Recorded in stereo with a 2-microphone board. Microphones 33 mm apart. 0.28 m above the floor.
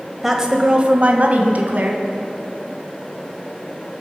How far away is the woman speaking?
About 1.1 m.